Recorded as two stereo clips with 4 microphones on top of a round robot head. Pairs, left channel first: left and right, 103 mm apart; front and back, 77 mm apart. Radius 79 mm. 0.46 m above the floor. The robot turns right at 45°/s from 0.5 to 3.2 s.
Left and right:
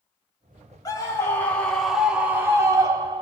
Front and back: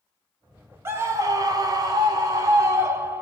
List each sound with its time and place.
0.8 s a scream: 135° left, 1.3 m; by 3.2 s 120° right, 1.3 m